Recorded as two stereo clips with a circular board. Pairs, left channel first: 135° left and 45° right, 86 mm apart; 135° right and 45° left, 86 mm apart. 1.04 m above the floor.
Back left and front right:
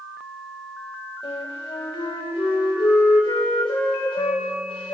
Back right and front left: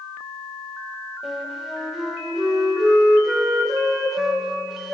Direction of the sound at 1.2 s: 130° left.